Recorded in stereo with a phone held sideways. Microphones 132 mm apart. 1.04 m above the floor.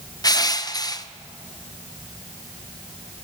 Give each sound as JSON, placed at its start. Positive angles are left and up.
{"t": 0.2, "sound": "crushing", "side_deg": 30, "distance_m": 0.9}